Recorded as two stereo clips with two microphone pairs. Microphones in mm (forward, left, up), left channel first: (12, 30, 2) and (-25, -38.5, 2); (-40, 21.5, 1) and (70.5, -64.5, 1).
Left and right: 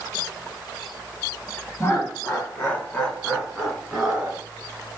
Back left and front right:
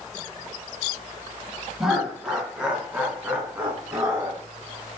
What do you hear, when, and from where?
1.8 s laughter: 45° left, 1.8 m; by 4.4 s 65° right, 1.5 m